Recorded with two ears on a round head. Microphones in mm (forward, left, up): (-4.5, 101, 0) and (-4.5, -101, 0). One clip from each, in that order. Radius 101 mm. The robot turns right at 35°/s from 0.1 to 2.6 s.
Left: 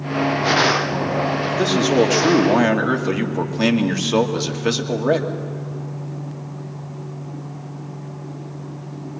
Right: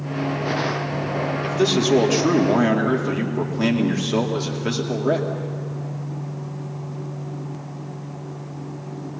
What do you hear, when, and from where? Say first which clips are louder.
1.4 s a man speaking: right 2 dB; 10° right, 2.5 m; by 5.3 s 30° left, 2.5 m